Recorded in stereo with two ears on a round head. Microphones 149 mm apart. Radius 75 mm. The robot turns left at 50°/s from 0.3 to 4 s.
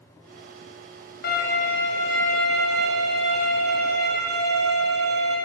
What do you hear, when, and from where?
1.2 s a violin: 65° left, 1.3 m; by 5.4 s 75° right, 1.3 m